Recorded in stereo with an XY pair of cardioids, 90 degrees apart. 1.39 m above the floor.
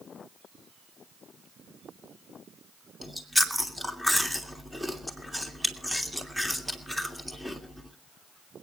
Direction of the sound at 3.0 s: 5° right.